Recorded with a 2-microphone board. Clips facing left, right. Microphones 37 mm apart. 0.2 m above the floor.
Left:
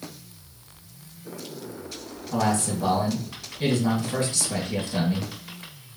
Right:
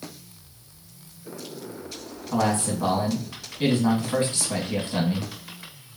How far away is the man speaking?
About 1.7 m.